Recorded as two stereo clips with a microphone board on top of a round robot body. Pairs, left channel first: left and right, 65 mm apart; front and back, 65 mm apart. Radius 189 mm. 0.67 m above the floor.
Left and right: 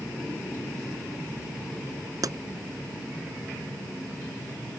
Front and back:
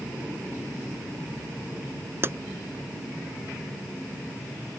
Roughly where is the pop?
Behind right.